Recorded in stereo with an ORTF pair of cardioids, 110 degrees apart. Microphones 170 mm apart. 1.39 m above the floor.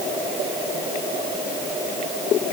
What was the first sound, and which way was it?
Only background noise.